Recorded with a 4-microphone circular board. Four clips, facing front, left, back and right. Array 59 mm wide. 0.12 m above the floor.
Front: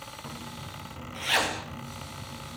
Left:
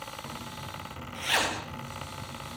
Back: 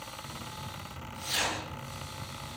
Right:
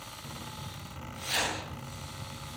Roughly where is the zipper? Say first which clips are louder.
Left 3 dB, front 1 dB; ahead left.